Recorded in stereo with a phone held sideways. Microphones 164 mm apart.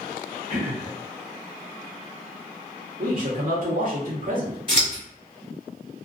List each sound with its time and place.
0.5 s throat clearing: 50° right (ahead or behind), 1.2 m
3.0 s a man speaking: 55° right (ahead or behind), 1.0 m
4.7 s scissors: 35° right (ahead or behind), 1.4 m